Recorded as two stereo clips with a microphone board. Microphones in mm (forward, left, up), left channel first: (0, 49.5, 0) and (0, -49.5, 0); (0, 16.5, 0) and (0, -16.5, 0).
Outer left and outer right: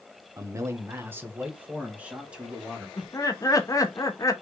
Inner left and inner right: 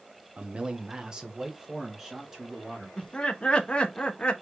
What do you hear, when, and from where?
0.4 s a man speaking: 35° right (ahead or behind), 0.9 m; by 2.9 s 5° right (ahead or behind), 2 m
3.0 s laughter: 35° left (ahead or behind), 1.1 m